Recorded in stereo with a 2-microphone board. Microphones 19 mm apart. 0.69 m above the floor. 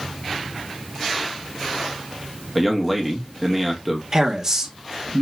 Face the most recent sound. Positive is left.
turn(degrees=-30)  # may be behind; listen again after turning